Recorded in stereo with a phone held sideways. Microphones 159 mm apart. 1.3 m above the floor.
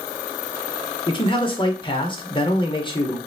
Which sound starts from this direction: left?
A man speaking, at 1.1 s.